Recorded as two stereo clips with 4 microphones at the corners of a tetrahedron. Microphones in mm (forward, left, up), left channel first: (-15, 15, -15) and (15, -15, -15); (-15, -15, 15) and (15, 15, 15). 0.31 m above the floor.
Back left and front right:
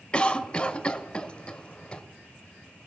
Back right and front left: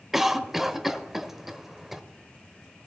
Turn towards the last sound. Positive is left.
turn(degrees=120)